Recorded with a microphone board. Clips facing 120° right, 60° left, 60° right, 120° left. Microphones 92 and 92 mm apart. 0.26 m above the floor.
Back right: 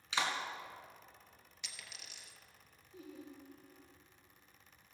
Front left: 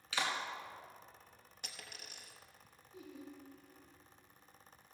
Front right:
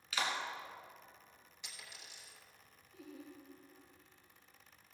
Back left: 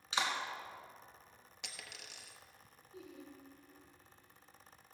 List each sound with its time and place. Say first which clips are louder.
0.1 s a clap: back right 1 dB, back left 1 dB; straight behind, 2 m
1.6 s a dropped coin: front left 2 dB, back left 3 dB; 105° left, 1.1 m
2.9 s laughter: even, even; 170° right, 4 m